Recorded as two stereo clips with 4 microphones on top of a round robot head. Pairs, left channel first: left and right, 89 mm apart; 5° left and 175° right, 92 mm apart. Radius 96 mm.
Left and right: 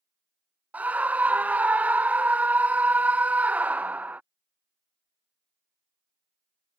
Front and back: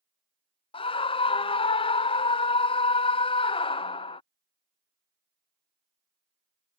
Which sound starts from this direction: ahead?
A scream, at 0.7 s.